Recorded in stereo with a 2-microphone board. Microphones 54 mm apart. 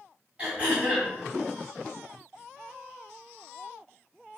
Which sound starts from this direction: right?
Throat clearing, at 0.4 s.